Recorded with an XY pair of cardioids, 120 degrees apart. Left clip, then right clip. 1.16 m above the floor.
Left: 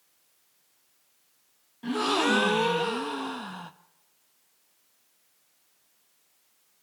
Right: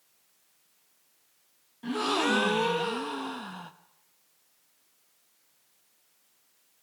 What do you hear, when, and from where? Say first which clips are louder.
1.8 s a gasp: left 2 dB; 10° left, 0.9 m